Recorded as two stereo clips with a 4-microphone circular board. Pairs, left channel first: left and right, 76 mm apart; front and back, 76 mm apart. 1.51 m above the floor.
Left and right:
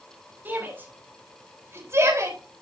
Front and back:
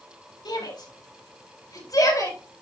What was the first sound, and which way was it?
A shout, 25° right.